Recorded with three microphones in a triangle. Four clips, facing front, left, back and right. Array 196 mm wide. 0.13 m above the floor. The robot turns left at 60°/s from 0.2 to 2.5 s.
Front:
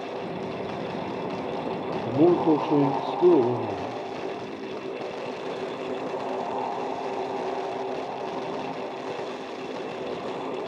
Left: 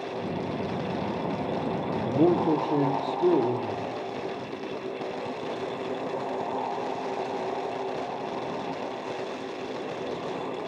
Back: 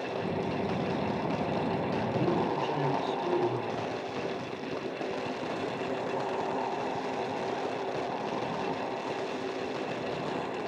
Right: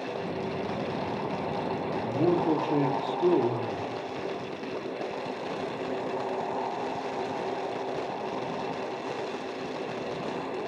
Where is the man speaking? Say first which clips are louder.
Left 3 dB, front 12 dB; 35° left, 3 m; by 4.0 s 10° left, 3 m.